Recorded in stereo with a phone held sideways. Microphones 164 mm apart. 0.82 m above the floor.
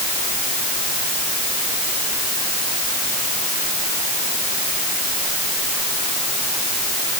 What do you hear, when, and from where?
Only background noise.